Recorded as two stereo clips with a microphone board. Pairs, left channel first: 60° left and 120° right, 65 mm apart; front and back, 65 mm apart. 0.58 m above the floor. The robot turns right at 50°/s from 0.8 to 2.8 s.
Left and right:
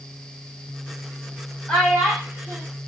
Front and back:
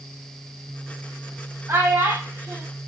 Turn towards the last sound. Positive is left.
turn(degrees=-170)